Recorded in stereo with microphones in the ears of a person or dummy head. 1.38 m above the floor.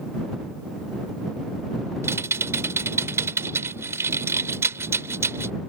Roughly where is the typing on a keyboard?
Centre.